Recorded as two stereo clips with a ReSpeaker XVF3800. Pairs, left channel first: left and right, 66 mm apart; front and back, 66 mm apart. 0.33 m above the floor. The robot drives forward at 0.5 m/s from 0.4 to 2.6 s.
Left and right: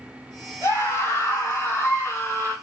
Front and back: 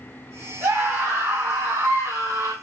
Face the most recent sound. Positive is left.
turn(degrees=145)